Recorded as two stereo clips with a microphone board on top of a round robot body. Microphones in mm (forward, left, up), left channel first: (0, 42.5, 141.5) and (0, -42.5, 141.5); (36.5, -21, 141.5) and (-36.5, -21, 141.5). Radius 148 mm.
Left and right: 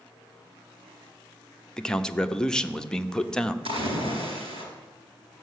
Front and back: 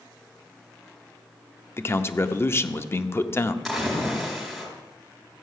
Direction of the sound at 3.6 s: 90° right.